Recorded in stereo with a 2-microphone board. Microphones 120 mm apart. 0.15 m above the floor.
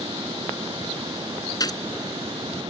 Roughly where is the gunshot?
Left.